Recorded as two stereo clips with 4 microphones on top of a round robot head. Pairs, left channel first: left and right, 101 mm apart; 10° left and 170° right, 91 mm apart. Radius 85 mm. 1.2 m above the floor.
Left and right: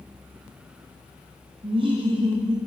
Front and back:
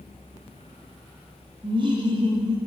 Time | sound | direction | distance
1.6 | laughter | 130° right | 1.7 m